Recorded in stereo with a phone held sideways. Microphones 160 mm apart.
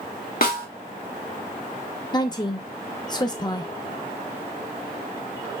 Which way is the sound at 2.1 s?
25° left (ahead or behind).